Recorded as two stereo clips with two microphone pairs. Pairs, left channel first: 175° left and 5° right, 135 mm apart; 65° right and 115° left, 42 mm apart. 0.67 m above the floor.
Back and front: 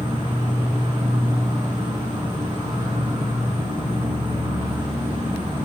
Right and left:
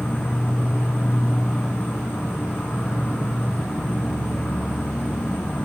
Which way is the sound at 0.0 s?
50° right.